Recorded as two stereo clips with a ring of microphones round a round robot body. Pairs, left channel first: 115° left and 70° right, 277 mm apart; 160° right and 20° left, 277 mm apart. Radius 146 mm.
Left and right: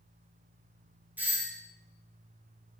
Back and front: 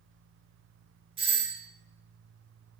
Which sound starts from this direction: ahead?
A doorbell, at 1.2 s.